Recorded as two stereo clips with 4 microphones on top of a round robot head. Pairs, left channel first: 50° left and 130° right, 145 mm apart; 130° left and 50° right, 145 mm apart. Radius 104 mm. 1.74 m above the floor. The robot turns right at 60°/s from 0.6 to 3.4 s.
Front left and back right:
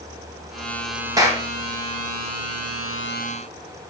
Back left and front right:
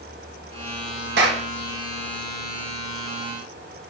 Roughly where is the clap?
Ahead right.